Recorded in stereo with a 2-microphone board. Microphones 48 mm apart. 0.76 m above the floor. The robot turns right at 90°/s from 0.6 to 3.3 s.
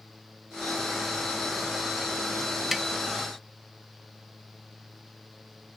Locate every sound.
2.7 s tapping: 5° right (ahead or behind); by 2.9 s 5° left (ahead or behind)